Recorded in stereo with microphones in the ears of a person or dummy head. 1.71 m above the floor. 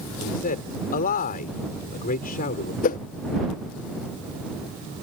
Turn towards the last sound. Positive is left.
turn(degrees=45)  # may be behind; listen again after turning